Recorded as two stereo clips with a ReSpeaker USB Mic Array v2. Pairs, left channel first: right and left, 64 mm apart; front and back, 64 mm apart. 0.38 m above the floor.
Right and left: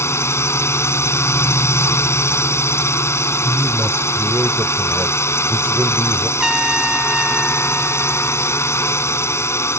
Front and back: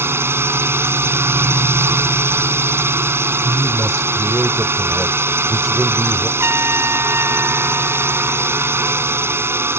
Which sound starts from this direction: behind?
A trumpet, at 6.4 s.